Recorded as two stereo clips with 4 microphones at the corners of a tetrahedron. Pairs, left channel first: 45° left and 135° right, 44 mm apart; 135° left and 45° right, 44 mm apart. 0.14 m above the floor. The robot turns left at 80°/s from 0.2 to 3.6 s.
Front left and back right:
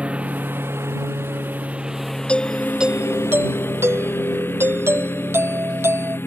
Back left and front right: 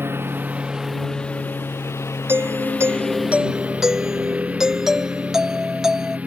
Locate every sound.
0.0 s a lawn mower: 75° right; by 6.3 s 15° left
2.3 s a doorbell: 20° right; by 6.2 s 125° right